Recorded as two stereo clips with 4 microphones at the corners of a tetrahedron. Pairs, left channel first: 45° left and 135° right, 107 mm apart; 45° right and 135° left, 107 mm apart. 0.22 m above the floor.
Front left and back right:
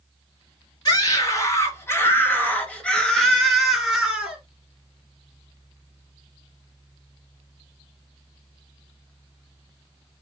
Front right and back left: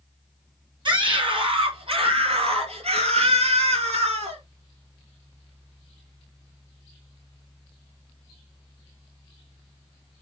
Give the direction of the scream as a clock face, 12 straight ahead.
9 o'clock.